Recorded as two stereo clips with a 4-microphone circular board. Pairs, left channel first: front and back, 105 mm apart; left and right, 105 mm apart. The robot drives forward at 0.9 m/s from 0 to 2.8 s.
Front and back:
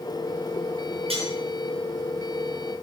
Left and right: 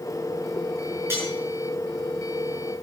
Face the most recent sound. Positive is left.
turn(degrees=-160)